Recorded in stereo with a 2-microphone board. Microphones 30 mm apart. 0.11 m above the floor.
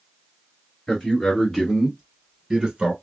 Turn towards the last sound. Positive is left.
turn(degrees=-25)  # may be behind; listen again after turning